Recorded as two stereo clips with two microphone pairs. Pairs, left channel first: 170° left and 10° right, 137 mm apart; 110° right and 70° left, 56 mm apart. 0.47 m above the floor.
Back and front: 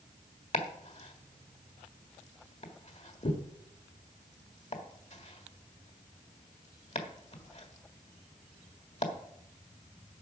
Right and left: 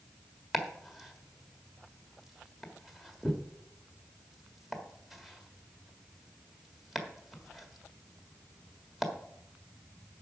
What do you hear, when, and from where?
0.5 s chopping: 160° left, 1.5 m